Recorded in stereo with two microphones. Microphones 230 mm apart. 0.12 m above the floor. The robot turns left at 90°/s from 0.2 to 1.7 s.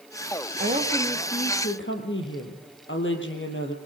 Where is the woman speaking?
140° right, 4 m; by 3.8 s 120° left, 4 m.